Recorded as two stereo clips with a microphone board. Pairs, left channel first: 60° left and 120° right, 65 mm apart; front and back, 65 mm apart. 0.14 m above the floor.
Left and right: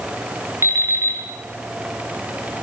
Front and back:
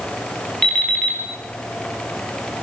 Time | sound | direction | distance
0.6 | an alarm clock | 80° right | 8.5 m